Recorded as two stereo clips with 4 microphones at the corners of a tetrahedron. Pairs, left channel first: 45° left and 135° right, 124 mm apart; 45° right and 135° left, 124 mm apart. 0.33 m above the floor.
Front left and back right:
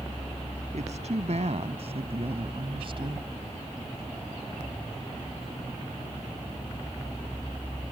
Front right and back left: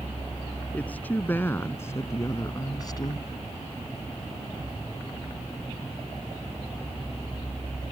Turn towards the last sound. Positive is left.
turn(degrees=-90)